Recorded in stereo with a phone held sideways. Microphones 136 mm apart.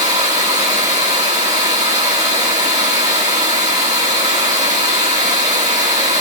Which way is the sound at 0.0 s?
65° right (ahead or behind).